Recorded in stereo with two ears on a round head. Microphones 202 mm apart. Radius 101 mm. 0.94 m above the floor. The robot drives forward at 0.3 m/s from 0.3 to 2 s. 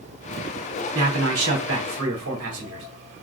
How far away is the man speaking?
About 2 m.